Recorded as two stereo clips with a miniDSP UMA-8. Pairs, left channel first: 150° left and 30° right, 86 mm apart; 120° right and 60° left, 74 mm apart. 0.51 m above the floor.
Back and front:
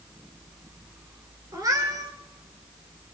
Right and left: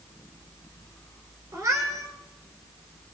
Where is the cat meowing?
15° left, 1.9 m.